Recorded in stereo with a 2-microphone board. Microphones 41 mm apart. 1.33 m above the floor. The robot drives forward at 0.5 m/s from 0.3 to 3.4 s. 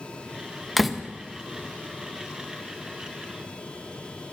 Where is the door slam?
Centre (ahead or behind), 0.7 m.